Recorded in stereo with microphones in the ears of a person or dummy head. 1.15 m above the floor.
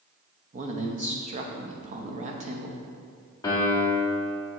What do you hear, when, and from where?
0.5 s a man speaking: 35° right (ahead or behind), 0.9 m
3.4 s a piano: 20° left (ahead or behind), 1.5 m